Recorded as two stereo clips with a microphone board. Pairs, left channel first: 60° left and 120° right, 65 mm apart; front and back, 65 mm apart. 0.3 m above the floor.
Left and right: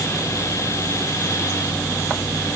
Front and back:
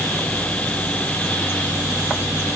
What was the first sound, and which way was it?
Only background noise.